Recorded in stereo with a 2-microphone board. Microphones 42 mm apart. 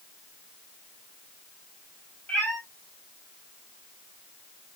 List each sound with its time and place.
2.3 s a cat meowing: 30° left (ahead or behind), 2.5 m